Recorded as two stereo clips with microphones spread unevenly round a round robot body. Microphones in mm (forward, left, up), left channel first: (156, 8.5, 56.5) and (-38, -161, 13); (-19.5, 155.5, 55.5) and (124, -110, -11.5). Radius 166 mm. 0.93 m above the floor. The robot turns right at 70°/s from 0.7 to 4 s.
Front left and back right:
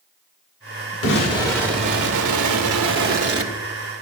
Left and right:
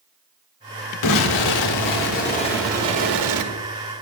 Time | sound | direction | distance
1.0 | an explosion | 95° left | 1.8 m